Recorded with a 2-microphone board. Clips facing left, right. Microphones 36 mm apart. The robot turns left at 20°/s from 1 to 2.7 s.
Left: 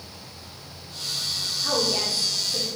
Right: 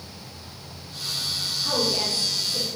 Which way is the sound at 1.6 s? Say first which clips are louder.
Even; 30° left (ahead or behind).